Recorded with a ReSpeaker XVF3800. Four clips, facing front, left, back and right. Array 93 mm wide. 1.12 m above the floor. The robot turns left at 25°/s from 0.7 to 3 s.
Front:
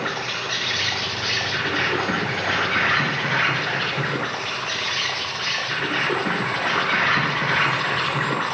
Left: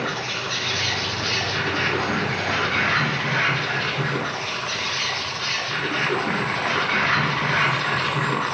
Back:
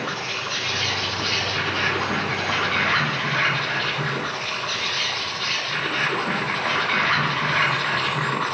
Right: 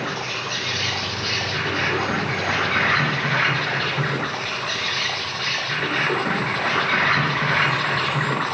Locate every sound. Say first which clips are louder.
0.0 s an insect: even, front 1 dB; 25° left, 3.5 m; by 8.6 s 35° right, 3.5 m